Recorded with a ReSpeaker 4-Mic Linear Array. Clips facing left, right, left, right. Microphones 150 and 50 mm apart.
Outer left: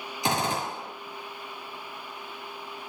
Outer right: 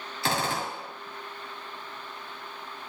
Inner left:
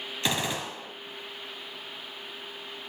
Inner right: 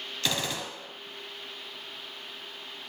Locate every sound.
0.2 s a gunshot: 20° left (ahead or behind), 1.8 m